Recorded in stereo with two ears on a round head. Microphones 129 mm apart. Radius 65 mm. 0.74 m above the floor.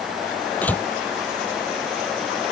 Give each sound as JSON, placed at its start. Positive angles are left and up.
{"t": 0.6, "sound": "a door slam", "side_deg": 10}